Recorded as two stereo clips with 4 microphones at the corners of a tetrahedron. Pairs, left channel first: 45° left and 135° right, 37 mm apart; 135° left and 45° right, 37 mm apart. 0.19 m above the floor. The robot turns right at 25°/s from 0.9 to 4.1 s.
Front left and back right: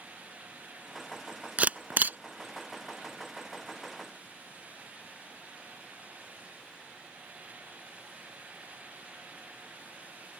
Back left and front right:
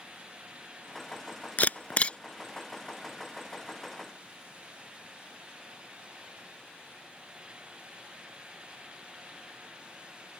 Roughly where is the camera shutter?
Behind.